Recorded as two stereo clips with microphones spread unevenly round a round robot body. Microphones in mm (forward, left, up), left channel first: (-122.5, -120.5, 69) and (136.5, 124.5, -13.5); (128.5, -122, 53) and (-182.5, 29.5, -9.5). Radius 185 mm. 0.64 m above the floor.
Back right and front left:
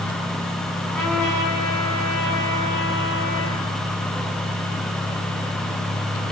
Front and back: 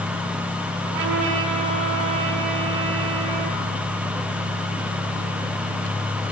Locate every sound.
0.8 s a trumpet: 140° left, 5.5 m